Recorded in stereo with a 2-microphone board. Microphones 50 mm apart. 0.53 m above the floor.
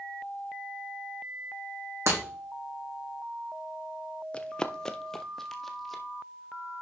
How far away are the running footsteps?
About 0.6 m.